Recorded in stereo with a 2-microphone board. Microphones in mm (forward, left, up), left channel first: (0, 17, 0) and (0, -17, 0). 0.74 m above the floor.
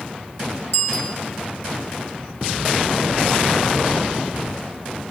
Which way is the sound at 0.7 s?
50° left (ahead or behind).